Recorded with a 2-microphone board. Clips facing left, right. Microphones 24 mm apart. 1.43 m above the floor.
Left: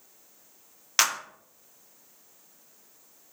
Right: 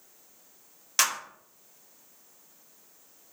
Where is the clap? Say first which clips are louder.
Left 2 dB; 25° left (ahead or behind), 0.8 m.